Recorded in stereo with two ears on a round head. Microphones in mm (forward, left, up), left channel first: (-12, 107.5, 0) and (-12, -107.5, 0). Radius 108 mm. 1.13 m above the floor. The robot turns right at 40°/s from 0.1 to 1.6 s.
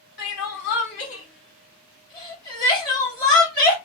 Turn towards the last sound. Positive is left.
turn(degrees=15)  # may be behind; listen again after turning